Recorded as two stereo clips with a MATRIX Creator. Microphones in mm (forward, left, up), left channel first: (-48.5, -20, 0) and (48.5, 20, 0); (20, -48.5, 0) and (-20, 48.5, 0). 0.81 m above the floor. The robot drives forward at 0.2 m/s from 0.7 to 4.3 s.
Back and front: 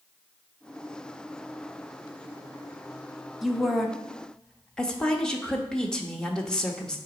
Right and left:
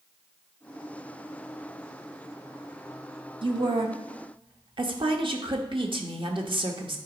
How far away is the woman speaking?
About 0.9 m.